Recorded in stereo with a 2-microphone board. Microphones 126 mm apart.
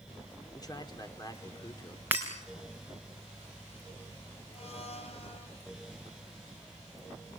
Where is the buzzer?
I don't hear a buzzer.